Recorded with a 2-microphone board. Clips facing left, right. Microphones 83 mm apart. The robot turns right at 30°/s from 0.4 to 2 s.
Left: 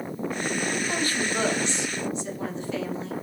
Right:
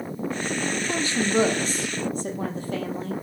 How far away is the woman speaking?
About 3.5 m.